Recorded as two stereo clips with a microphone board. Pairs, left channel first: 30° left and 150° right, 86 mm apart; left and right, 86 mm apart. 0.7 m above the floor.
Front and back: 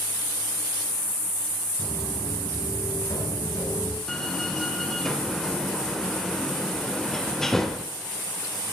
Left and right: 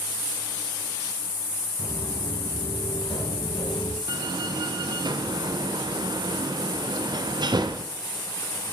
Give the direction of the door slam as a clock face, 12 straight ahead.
2 o'clock.